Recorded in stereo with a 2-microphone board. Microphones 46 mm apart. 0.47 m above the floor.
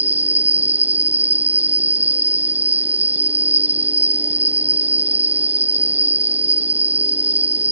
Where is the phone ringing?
I don't hear a phone ringing.